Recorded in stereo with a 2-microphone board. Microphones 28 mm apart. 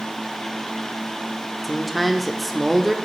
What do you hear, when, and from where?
1.6 s a woman speaking: 5° left (ahead or behind), 0.7 m